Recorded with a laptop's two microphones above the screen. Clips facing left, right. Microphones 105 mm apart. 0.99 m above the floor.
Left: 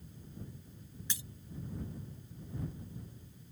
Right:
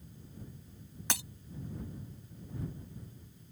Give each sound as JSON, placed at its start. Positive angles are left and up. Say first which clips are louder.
{"t": 1.1, "sound": "breaking glass", "louder": "right 10 dB", "side_deg": -75}